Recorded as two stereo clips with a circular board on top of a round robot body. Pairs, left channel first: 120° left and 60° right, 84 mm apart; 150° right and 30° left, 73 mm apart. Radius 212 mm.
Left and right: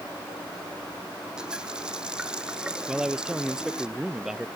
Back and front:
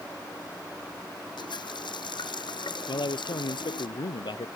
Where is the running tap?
140° right.